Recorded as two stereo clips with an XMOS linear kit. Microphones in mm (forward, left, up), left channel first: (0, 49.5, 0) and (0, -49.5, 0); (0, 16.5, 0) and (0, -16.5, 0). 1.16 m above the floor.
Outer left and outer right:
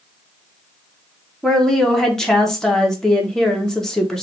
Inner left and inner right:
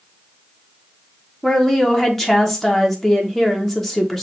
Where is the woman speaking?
5° left (ahead or behind), 1.1 m.